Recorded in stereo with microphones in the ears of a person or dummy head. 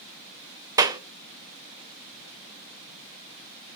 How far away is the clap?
About 0.6 m.